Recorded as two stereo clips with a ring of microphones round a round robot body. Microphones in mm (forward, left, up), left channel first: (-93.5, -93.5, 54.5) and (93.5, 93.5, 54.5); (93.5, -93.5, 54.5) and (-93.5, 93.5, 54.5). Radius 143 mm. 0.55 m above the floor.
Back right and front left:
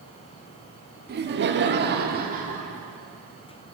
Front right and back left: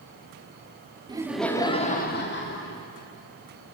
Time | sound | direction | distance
1.1 | laughter | 70° left | 1.2 m